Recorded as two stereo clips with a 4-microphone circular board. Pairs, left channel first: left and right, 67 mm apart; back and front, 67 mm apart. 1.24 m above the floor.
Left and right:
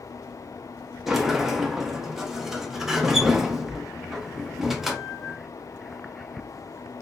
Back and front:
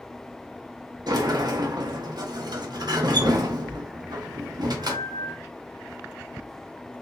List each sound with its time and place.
1.1 s a sliding door: 5° right, 0.7 m